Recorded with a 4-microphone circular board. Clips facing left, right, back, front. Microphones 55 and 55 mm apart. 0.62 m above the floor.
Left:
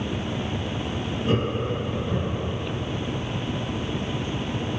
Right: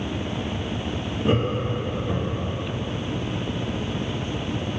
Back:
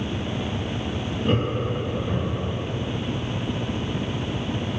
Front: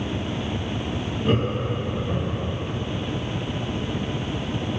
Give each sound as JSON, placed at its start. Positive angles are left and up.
{"t": 1.2, "sound": "laughter", "azimuth_deg": -90, "distance_m": 1.0}